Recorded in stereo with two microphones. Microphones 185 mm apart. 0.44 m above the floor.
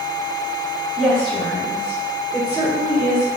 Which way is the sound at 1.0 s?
Centre (ahead or behind).